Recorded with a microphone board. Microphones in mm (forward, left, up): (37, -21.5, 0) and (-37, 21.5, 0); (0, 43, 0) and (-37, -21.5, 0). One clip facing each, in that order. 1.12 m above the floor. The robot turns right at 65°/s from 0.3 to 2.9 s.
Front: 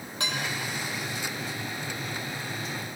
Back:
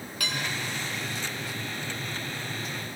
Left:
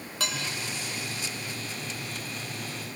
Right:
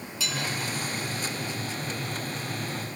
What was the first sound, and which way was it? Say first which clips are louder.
Dishes clattering: front 1 dB, even; 30° left.